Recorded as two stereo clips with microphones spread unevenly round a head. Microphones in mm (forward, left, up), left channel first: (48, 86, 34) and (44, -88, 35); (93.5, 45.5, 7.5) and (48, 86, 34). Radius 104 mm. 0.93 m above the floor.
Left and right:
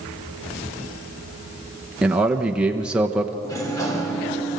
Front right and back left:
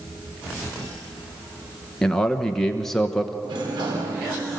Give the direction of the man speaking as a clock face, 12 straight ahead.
12 o'clock.